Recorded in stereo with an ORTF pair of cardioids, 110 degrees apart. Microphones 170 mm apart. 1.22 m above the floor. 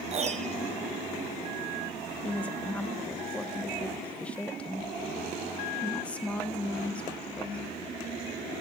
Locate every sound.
0.1 s a piano: 40° right, 1.1 m
2.2 s a woman speaking: 5° left, 1.0 m